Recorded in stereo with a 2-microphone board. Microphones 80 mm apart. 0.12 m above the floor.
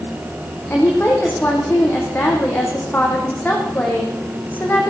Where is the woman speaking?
20° left (ahead or behind), 7 m.